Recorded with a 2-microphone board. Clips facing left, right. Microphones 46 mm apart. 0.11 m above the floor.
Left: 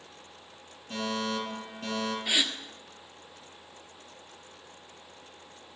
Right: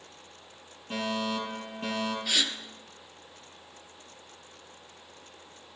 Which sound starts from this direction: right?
A fire alarm, at 0.9 s.